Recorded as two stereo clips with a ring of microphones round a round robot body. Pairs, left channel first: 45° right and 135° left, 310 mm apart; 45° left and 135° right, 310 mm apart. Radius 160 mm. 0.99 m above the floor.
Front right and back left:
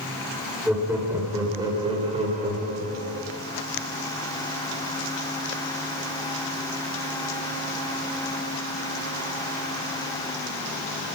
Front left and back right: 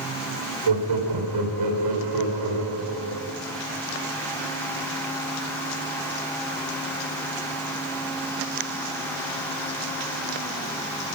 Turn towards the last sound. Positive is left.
turn(degrees=-160)